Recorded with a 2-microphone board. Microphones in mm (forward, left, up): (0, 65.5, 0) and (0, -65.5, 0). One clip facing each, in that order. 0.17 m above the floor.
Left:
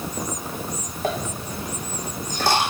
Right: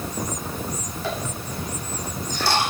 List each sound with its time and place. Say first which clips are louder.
1.0 s a dropped coin: left 4 dB; 45° left (ahead or behind), 2.5 m